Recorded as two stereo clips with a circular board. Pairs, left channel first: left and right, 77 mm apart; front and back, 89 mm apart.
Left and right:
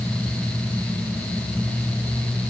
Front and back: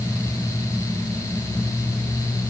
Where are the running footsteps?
I don't hear running footsteps.